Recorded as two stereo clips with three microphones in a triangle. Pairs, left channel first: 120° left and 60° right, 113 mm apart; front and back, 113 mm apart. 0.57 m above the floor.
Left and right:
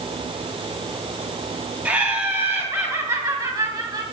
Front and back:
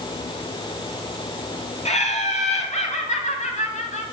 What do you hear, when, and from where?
1.9 s laughter: 15° left, 3.5 m; by 4.0 s 5° right, 3.5 m